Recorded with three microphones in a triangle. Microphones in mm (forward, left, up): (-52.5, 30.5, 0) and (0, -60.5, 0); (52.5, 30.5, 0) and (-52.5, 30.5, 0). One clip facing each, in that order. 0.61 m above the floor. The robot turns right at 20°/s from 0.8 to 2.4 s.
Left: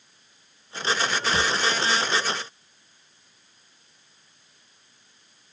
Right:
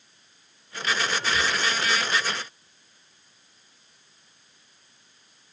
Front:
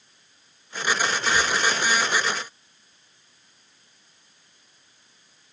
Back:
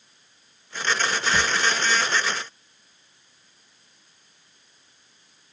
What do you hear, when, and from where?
1.3 s a drawer: 150° left, 1.8 m